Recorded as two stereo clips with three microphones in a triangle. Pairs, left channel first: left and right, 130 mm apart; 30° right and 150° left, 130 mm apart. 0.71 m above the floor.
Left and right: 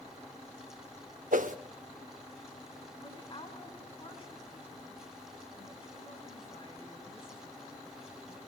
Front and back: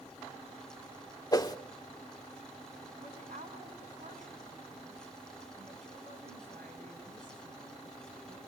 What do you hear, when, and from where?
1.3 s a whoosh: 90° right, 0.8 m
3.0 s a woman speaking: 135° left, 6.5 m